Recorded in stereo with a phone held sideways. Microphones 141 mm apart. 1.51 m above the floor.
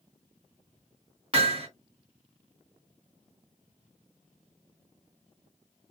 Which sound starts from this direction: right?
Hammering, at 1.3 s.